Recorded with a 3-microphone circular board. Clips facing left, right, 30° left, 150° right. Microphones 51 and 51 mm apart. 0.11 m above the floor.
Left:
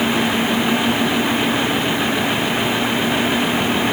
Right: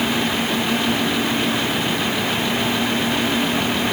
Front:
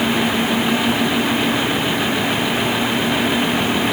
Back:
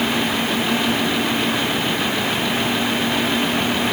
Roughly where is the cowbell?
No cowbell in this recording.